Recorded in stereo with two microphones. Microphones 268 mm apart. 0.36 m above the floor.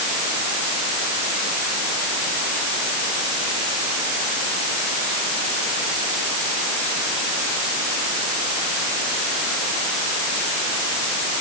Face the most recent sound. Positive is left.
No sound to turn to.